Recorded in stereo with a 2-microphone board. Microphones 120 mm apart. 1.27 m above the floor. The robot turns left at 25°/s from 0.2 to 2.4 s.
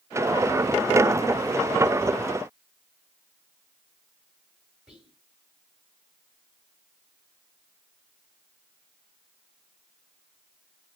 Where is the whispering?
10° right (ahead or behind), 4 m.